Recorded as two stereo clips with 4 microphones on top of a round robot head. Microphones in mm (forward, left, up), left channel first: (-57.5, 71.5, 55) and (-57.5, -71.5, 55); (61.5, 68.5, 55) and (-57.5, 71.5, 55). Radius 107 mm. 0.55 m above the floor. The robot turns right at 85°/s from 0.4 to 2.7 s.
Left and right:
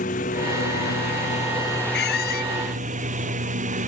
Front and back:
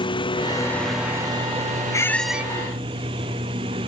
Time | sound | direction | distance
0.0 | a lawn mower | 45° left | ?
1.9 | a squeak | 60° left | ?